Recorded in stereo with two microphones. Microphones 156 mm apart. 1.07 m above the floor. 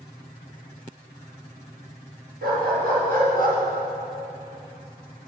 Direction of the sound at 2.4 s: 75° right (ahead or behind).